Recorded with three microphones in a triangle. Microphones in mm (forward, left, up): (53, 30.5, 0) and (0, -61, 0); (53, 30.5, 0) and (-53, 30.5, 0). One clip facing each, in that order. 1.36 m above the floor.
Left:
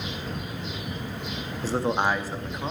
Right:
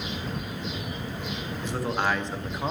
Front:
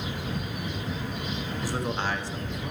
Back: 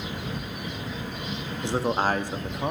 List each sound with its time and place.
1.6 s a man speaking: 115° left, 1.0 m; by 2.7 s 165° left, 0.9 m